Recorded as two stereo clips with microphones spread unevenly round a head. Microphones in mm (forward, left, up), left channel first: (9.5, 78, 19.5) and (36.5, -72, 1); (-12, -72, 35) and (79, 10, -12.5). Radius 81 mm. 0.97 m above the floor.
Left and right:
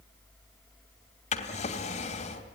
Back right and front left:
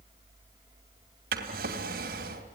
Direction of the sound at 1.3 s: 55° left.